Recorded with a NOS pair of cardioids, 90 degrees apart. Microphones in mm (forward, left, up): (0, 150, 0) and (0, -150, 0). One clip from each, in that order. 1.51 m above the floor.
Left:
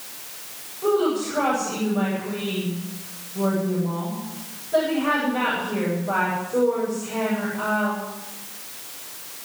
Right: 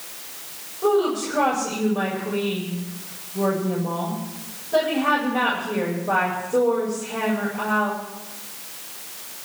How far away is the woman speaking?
About 8.5 m.